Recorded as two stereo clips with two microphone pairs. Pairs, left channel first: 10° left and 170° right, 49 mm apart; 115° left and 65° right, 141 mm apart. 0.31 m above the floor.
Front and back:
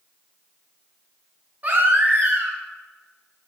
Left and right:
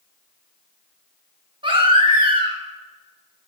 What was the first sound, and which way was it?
A baby crying, 120° right.